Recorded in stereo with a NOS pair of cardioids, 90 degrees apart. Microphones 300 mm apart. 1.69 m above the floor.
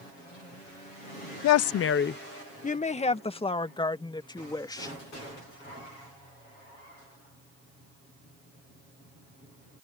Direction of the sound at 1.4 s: 70° left.